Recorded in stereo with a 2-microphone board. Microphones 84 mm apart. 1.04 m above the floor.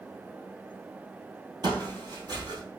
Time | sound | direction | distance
1.6 | footsteps | 55° right (ahead or behind) | 1.8 m